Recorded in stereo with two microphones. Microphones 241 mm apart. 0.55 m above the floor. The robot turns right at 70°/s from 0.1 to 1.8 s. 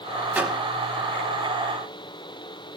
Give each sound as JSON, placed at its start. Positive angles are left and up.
{"t": 0.3, "sound": "a microwave", "side_deg": -10, "distance_m": 1.3}